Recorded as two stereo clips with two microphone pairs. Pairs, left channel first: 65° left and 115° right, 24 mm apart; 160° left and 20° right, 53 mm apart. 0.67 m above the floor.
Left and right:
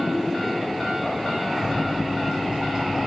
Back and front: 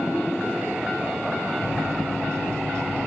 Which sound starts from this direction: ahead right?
A microwave, at 1.6 s.